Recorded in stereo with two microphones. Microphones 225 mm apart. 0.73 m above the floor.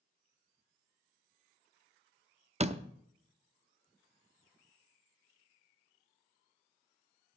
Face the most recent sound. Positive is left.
turn(degrees=-30)  # may be behind; listen again after turning